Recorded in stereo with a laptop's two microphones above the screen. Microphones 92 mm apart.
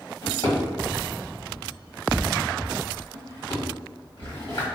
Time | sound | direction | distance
0.2 | a drawer | 70° left (ahead or behind) | 1.5 m